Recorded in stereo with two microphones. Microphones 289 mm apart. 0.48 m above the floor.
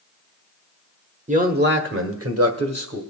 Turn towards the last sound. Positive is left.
turn(degrees=-60)  # may be behind; listen again after turning